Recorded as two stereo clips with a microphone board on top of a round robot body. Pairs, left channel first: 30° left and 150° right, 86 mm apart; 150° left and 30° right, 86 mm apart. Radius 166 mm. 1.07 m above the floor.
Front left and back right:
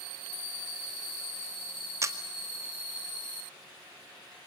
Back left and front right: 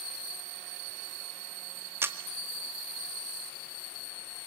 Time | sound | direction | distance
2.0 | a camera shutter | 95° right | 1.8 m